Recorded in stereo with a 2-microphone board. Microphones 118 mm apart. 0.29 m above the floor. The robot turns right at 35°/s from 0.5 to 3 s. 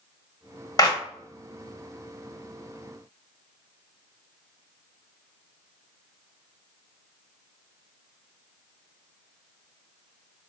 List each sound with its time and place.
0.8 s a clap: 30° left (ahead or behind), 0.7 m